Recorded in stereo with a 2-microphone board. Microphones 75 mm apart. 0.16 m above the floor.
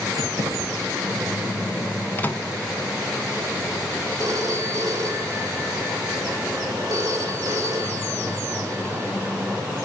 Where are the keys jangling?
55° right (ahead or behind), 6 m.